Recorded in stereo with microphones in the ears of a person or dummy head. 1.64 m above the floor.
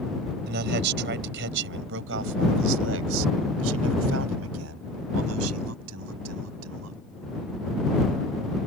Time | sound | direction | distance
0.5 | a man speaking | 55° right (ahead or behind) | ?